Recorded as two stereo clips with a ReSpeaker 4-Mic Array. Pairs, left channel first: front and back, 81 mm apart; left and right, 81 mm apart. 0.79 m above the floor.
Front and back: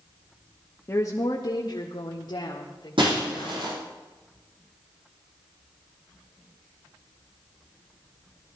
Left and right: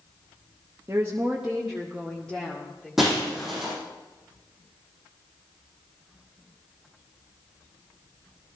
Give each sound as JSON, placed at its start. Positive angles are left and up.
{"t": 0.9, "sound": "a woman speaking", "azimuth_deg": -50, "distance_m": 1.0}
{"t": 3.0, "sound": "breaking glass", "azimuth_deg": -175, "distance_m": 7.5}